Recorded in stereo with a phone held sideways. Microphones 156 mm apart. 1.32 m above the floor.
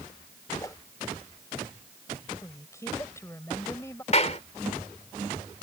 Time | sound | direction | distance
0.6 | a whoosh | 20° left (ahead or behind) | ?
2.4 | a woman speaking | 20° left (ahead or behind) | ?
4.1 | a clap | 45° left (ahead or behind) | ?